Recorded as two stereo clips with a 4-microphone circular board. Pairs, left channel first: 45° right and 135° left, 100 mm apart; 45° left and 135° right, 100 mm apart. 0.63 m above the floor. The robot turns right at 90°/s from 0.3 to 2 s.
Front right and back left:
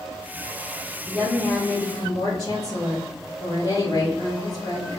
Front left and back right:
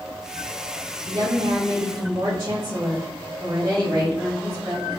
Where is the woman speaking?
170° right, 1.9 m; by 5.0 s 85° right, 1.9 m.